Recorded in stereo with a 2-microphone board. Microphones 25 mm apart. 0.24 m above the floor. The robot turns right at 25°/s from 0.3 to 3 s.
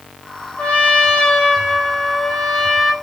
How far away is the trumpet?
About 1.2 m.